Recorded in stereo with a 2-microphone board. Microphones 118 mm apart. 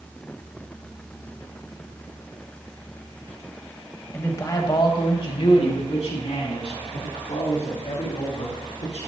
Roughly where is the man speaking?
Left.